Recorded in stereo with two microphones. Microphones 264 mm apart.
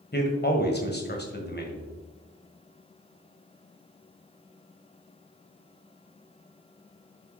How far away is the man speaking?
About 1.9 m.